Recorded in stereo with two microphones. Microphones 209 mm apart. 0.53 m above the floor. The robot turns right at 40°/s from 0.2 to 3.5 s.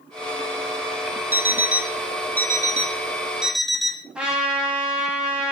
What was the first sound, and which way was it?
An alarm clock, 85° right.